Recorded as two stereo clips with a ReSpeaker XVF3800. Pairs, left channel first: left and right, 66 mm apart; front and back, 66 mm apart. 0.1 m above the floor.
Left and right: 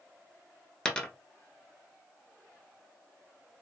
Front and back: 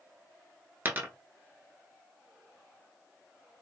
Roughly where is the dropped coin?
Behind left.